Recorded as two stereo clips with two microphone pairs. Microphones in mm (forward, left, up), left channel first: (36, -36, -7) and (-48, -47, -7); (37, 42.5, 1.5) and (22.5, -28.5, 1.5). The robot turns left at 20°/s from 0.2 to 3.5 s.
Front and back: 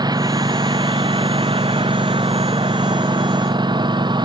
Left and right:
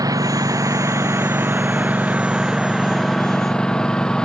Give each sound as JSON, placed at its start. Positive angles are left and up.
{"t": 0.0, "sound": "a lawn mower", "azimuth_deg": -135}